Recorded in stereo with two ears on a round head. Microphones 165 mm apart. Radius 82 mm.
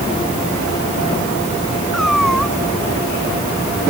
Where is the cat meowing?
Centre (ahead or behind).